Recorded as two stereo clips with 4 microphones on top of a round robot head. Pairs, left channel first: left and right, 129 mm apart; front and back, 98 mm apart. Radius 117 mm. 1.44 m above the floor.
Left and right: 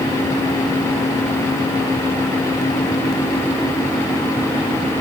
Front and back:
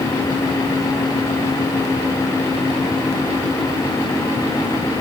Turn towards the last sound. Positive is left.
No sound to turn to.